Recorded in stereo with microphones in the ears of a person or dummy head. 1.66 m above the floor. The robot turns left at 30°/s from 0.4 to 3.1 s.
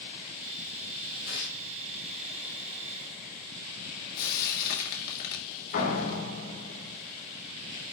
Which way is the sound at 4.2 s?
60° left (ahead or behind).